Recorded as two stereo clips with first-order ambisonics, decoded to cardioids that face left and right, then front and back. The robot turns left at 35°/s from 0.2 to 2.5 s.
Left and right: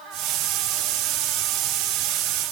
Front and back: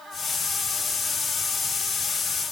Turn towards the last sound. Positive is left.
No sound to turn to.